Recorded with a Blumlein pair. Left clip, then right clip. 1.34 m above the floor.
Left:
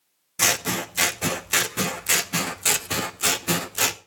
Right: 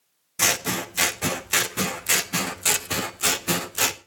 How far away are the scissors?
About 0.6 m.